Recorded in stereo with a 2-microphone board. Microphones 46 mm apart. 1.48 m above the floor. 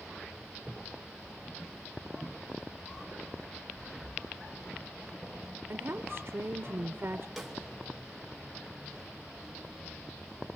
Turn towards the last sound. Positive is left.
turn(degrees=0)  # may be behind; listen again after turning